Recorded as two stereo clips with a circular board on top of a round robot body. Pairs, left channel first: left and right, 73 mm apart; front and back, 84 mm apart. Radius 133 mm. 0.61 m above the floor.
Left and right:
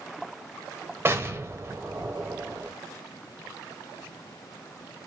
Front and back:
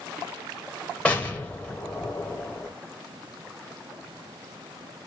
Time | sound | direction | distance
1.1 | an explosion | 65° right | 1.4 m